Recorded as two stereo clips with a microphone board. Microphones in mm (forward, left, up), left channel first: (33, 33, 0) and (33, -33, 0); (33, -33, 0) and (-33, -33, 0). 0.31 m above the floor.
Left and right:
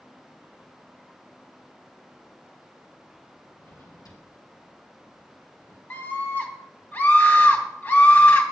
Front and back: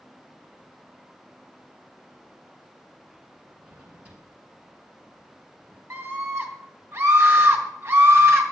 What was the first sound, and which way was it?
A drawer, 110° left.